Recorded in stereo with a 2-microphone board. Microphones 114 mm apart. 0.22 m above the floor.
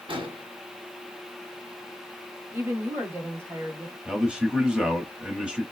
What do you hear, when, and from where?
0.1 s an explosion: 50° right (ahead or behind), 1.7 m
2.5 s a woman speaking: 20° right (ahead or behind), 1.5 m
4.0 s a man speaking: 5° right (ahead or behind), 1.1 m